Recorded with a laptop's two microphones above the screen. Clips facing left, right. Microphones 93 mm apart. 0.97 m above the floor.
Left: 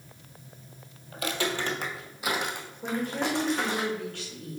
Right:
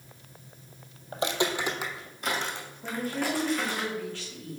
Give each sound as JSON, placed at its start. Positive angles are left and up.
{"t": 1.1, "sound": "footsteps", "side_deg": -30, "distance_m": 1.3}
{"t": 2.8, "sound": "a woman speaking", "side_deg": 55, "distance_m": 3.0}